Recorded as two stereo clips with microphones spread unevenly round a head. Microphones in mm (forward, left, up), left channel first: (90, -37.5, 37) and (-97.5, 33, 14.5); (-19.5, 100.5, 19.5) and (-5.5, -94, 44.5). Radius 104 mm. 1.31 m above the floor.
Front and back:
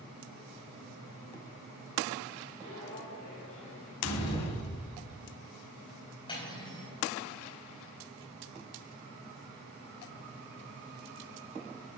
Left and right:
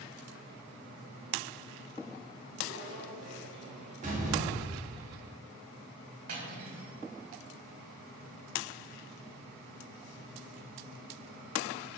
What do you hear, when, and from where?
2.6 s footsteps: 45° right, 3 m; by 3.9 s 30° right, 4 m
4.0 s a door slam: 30° right, 1.9 m
6.3 s cutlery clinking: 85° right, 4 m